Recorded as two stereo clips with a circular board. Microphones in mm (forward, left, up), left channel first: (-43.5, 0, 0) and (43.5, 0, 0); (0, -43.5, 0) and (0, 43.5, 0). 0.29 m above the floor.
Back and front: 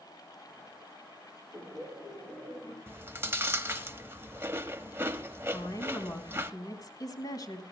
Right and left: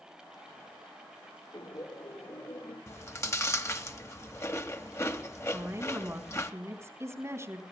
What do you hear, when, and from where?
1.5 s laughter: 115° right, 4.5 m
2.9 s chewing: 50° right, 0.9 m
5.5 s a woman speaking: 140° left, 3 m